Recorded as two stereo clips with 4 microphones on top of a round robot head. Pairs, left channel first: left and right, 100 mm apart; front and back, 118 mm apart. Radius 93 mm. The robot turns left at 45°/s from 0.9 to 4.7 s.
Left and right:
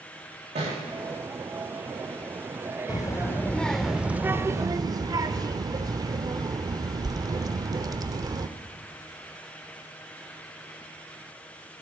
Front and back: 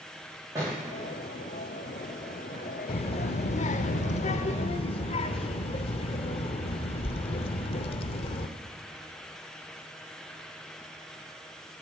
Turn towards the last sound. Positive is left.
turn(degrees=-40)